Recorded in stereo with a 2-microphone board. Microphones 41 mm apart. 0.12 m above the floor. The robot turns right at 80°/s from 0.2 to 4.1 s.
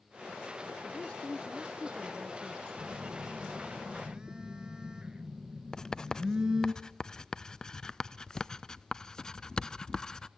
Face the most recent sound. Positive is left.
turn(degrees=15)  # may be behind; listen again after turning